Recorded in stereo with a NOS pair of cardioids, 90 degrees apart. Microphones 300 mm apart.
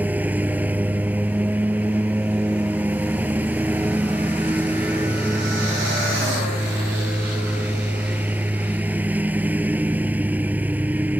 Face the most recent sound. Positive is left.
turn(degrees=-5)